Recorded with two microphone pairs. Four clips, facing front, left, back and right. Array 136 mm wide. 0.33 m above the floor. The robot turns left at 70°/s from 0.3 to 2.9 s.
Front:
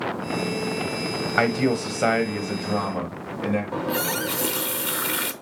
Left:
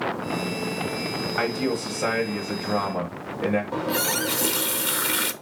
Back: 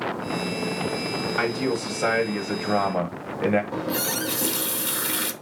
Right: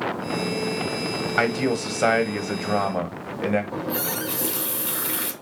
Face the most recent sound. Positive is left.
turn(degrees=65)